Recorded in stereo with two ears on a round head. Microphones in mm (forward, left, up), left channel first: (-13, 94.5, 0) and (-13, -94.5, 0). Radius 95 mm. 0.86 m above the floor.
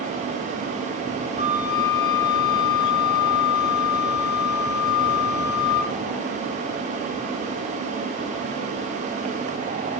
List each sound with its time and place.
1.4 s a flute: 20° left (ahead or behind), 7 m